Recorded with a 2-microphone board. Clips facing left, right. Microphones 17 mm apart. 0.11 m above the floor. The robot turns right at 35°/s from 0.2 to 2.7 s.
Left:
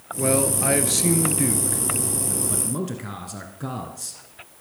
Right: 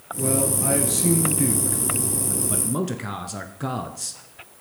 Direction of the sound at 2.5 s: 15° right (ahead or behind).